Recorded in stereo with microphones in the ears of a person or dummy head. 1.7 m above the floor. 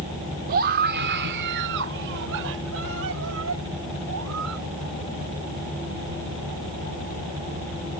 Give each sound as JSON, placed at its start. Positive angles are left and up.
{"t": 0.5, "sound": "a scream", "side_deg": -50}